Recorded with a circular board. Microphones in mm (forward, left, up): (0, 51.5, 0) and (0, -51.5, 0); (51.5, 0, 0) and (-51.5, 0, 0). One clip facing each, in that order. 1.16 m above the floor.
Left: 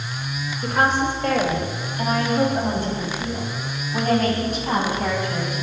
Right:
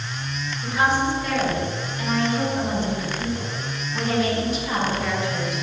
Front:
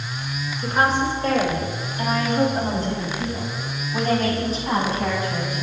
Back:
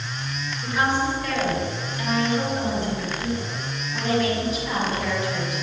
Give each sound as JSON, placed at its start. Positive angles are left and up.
{"t": 0.6, "sound": "a woman speaking", "azimuth_deg": 55, "distance_m": 4.5}